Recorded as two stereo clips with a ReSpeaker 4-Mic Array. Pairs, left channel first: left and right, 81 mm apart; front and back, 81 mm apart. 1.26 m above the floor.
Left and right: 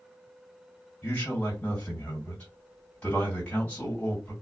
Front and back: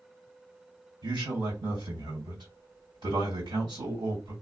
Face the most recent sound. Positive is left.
turn(degrees=160)